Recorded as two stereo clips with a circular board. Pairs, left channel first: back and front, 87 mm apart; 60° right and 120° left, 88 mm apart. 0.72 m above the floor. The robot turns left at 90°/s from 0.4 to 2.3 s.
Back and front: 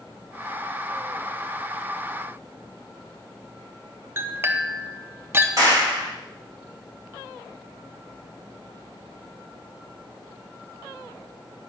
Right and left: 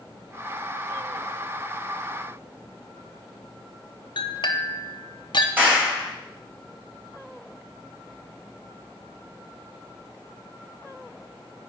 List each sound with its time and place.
4.2 s a clink: 55° right, 0.8 m
5.6 s a clap: 50° left, 3.5 m